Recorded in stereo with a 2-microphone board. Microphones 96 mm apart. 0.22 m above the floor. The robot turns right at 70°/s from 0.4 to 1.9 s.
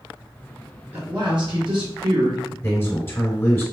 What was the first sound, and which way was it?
A man speaking, 155° right.